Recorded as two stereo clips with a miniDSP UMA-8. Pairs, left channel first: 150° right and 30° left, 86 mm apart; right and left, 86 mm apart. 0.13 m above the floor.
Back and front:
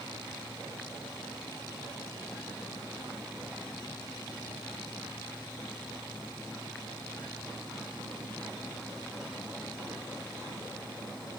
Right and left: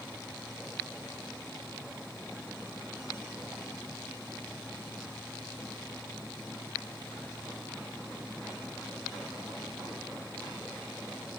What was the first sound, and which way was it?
Only background noise.